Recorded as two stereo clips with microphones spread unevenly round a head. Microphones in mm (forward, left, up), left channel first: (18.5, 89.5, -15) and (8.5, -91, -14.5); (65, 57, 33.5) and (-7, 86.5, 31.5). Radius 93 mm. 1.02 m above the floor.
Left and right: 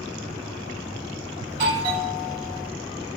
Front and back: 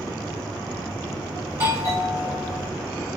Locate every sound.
1.5 s a doorbell: 150° right, 1.6 m